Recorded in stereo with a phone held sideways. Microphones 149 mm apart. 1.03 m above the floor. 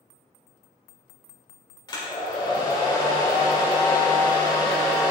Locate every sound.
1.9 s a hair dryer: 30° left (ahead or behind), 1.8 m